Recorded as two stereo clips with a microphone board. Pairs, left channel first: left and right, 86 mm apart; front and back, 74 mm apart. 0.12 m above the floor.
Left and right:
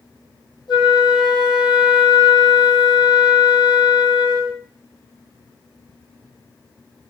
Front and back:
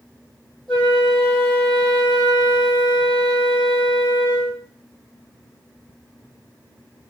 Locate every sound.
0.7 s a flute: 85° left, 1.0 m